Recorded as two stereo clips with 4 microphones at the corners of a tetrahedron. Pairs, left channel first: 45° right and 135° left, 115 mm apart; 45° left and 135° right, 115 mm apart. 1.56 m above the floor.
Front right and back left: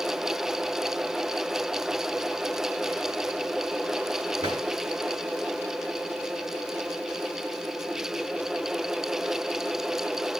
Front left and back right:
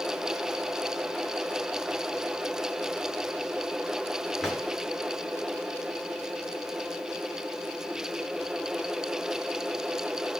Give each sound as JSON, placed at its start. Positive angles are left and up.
{"t": 4.4, "sound": "a drawer", "azimuth_deg": 135, "distance_m": 2.5}